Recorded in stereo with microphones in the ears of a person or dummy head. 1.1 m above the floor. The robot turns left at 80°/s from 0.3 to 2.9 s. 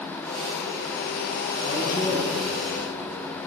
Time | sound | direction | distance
1.6 | a man speaking | 65° left | 7 m